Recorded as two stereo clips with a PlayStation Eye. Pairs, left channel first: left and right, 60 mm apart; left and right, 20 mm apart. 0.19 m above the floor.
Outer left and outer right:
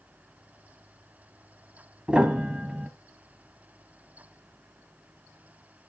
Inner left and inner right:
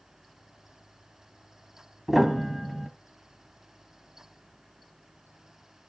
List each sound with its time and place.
2.1 s a piano: 20° right (ahead or behind), 1.2 m